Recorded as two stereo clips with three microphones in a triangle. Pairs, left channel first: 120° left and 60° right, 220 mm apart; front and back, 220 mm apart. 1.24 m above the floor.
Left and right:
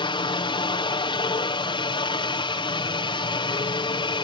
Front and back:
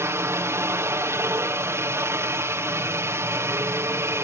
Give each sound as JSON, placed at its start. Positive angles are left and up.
{"t": 0.0, "sound": "a helicopter", "azimuth_deg": 125}